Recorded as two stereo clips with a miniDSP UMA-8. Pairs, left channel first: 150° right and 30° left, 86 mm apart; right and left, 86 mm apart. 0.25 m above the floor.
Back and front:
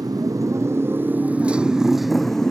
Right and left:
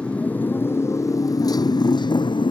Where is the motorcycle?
15° right; by 2.5 s 70° right.